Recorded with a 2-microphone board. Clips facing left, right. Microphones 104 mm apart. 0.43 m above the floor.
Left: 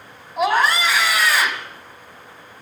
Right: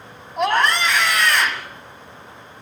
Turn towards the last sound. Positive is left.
turn(degrees=5)  # may be behind; listen again after turning